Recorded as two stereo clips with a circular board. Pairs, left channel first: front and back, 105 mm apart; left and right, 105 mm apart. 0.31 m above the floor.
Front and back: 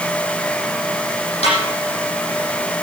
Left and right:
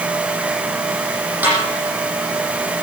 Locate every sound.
1.4 s a snare drum: 15° right, 9 m